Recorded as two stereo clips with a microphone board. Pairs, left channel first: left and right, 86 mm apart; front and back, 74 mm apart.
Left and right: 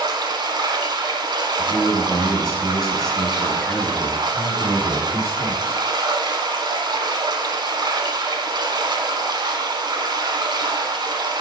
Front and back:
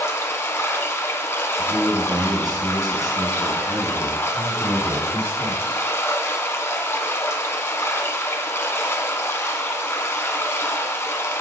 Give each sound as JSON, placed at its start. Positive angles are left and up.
{"t": 0.0, "sound": "running water", "azimuth_deg": -55, "distance_m": 0.9}
{"t": 1.6, "sound": "a man speaking", "azimuth_deg": 180, "distance_m": 2.5}
{"t": 4.3, "sound": "a man speaking", "azimuth_deg": 180, "distance_m": 4.0}